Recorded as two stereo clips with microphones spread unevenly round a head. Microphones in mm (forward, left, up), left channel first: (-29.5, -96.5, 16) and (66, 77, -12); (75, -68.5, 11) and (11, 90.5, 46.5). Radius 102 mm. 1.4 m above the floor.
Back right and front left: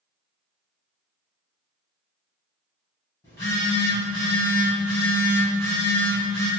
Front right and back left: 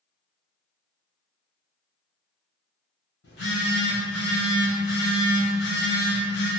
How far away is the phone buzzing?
About 1.7 m.